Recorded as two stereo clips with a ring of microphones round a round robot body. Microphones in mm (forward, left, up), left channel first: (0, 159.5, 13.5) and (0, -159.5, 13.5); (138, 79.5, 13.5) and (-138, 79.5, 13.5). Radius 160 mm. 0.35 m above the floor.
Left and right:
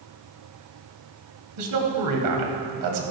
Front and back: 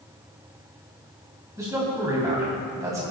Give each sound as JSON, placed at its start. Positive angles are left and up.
{"t": 1.6, "sound": "a man speaking", "azimuth_deg": -100, "distance_m": 1.9}